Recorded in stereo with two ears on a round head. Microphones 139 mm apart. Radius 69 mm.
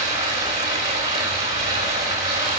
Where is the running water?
25° right (ahead or behind), 3.5 m.